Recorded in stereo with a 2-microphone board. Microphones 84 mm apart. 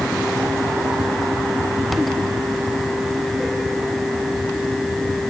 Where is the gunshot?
I don't hear a gunshot.